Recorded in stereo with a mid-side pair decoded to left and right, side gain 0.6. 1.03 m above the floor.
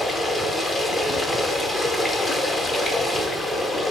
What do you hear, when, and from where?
0.0 s running water: 15° left, 0.8 m